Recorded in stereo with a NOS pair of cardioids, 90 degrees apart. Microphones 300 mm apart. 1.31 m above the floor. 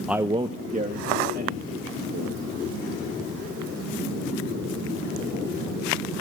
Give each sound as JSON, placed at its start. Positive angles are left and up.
{"t": 0.1, "sound": "a man speaking", "azimuth_deg": 0, "distance_m": 0.6}